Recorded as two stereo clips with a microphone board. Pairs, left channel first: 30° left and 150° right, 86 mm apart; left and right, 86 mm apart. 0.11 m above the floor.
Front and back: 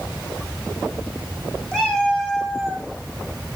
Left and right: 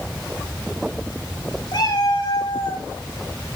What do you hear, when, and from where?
1.7 s a cat meowing: 115° left, 5 m; by 2.9 s 125° left, 4.5 m